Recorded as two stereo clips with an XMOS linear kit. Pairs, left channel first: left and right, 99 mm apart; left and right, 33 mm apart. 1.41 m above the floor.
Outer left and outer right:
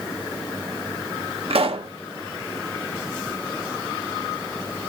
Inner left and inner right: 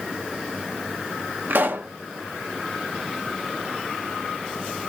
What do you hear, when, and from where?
1.5 s a pop: 70° right (ahead or behind), 0.9 m